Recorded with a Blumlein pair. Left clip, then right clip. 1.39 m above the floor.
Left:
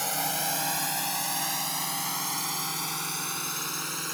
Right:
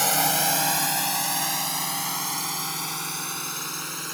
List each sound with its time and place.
0.0 s a drone: 20° right; by 4.1 s straight ahead